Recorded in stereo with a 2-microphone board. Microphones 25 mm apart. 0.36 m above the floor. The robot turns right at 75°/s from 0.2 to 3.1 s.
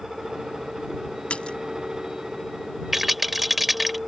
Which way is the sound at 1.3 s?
65° left (ahead or behind).